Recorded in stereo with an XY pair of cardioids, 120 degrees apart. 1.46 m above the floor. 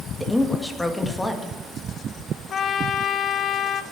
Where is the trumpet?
45° left, 0.9 m.